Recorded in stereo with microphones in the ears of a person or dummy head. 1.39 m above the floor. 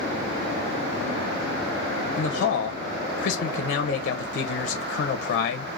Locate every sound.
2.2 s a man speaking: 50° left (ahead or behind), 0.6 m